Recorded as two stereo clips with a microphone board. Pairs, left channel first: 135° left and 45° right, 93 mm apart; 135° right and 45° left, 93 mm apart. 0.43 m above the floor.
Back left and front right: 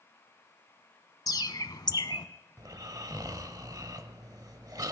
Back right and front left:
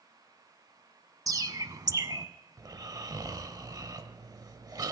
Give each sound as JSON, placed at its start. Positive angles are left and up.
{"t": 1.3, "sound": "a bird", "azimuth_deg": 90, "distance_m": 0.6}
{"t": 2.6, "sound": "snoring", "azimuth_deg": 0, "distance_m": 0.7}